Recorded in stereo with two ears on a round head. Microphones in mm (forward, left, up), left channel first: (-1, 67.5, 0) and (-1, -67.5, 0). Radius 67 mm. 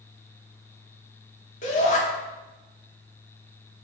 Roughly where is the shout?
Left.